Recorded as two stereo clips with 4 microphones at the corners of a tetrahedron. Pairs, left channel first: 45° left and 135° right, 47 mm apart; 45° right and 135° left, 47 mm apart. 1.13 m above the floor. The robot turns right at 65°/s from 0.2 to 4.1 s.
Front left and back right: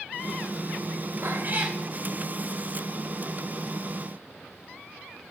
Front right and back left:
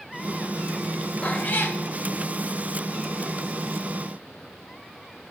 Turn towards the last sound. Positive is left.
turn(degrees=85)